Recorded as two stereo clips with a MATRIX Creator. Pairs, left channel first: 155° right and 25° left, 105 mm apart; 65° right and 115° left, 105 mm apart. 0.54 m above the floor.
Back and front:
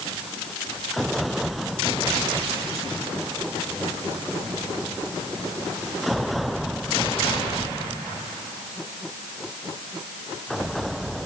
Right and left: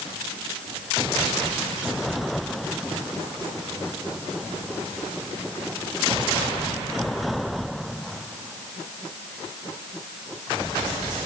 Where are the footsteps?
No footsteps in this recording.